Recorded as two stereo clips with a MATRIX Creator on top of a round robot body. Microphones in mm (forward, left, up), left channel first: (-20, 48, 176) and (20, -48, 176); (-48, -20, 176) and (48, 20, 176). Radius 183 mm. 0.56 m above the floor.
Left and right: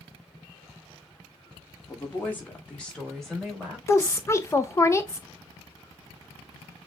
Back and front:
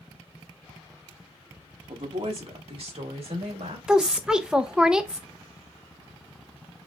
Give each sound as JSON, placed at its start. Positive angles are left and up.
{"t": 1.9, "sound": "a woman speaking", "azimuth_deg": 50, "distance_m": 1.9}
{"t": 3.9, "sound": "a woman speaking", "azimuth_deg": 95, "distance_m": 0.9}